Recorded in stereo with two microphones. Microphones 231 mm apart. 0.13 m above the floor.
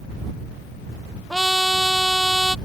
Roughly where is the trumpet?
Centre.